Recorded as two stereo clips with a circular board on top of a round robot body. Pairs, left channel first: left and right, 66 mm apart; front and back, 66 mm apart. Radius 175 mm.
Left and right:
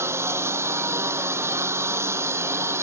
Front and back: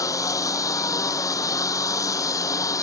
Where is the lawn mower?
40° right.